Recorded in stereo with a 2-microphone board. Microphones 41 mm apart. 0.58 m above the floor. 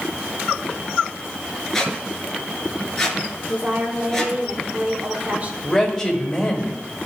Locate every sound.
1.7 s a squeak: 10° left (ahead or behind), 1.8 m
3.5 s a woman speaking: 40° right (ahead or behind), 1.4 m
5.6 s a man speaking: 10° left (ahead or behind), 3 m